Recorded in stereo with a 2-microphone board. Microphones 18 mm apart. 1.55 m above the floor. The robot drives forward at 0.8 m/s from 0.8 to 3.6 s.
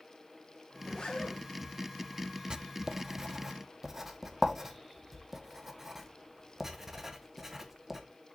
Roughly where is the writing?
Right.